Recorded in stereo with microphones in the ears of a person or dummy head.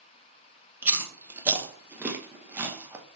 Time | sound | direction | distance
0.8 | chewing | 10° right (ahead or behind) | 1.2 m